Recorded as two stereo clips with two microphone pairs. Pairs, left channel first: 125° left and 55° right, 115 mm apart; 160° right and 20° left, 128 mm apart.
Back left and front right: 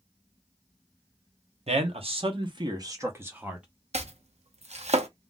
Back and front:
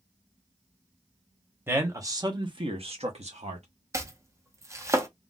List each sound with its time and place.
1.7 s a man speaking: 50° right, 1.1 m; by 3.6 s 30° left, 1.0 m
3.9 s chopping: 45° right, 0.6 m